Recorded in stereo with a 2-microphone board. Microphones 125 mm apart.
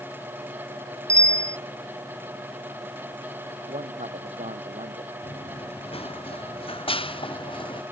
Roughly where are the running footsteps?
Left.